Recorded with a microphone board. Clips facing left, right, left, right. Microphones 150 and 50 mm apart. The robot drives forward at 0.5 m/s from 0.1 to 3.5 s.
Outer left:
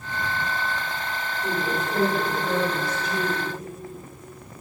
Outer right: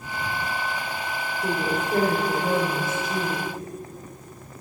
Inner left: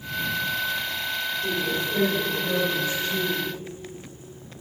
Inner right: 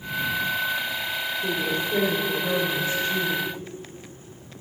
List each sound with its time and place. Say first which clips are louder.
1.4 s a woman speaking: outer right 1 dB, inner right 1 dB; 40° right (ahead or behind), 3 m; by 3.5 s 45° right (ahead or behind), 2.5 m